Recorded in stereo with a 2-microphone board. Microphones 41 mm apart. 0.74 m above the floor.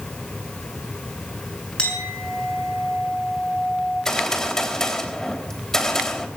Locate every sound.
1.8 s a clink: 25° left (ahead or behind), 7 m
4.0 s a gunshot: 20° left (ahead or behind), 3.5 m